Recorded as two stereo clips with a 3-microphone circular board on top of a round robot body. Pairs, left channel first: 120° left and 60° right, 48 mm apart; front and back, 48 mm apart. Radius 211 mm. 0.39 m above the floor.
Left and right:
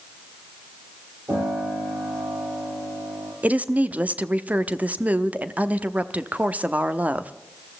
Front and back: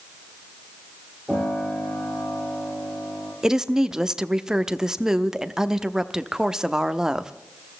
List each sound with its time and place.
1.3 s a piano: 95° right, 7 m
3.4 s a woman speaking: 105° right, 1.1 m